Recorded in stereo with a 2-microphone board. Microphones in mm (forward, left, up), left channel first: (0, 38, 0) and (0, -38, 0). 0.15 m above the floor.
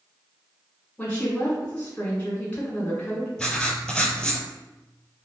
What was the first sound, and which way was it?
A woman speaking, 20° left (ahead or behind).